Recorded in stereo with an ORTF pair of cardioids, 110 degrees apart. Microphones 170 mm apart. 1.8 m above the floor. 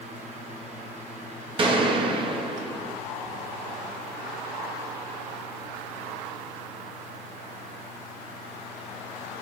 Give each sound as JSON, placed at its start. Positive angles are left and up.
{"t": 0.0, "sound": "a fan", "azimuth_deg": -40, "distance_m": 1.8}
{"t": 1.6, "sound": "a gunshot", "azimuth_deg": -30, "distance_m": 1.7}